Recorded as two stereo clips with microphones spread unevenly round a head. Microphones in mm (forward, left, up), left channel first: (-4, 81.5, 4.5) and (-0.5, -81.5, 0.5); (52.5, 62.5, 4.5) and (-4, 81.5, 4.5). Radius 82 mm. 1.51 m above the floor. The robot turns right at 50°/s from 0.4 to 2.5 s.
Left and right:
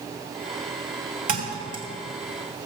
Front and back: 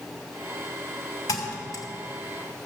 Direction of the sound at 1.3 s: 50° right.